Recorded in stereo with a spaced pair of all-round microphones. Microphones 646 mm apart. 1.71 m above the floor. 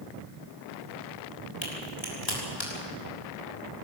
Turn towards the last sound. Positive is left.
turn(degrees=45)  # may be behind; listen again after turning